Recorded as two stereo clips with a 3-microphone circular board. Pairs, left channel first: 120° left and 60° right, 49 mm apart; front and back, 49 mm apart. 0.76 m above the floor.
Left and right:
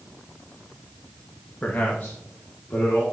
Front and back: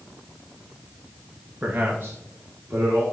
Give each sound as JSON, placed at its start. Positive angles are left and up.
{"t": 1.6, "sound": "a man speaking", "azimuth_deg": 150, "distance_m": 0.5}